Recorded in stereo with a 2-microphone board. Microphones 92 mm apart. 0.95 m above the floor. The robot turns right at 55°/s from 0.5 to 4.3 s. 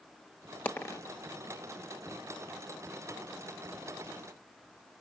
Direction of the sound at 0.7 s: 20° left (ahead or behind).